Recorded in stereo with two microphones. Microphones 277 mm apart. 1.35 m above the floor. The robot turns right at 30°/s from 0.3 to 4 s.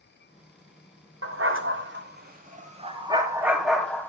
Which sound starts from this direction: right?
A dog barking, at 1.2 s.